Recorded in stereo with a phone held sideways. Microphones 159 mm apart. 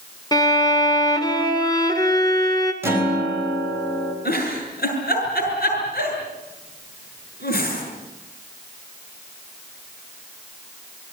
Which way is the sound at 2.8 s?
15° right (ahead or behind).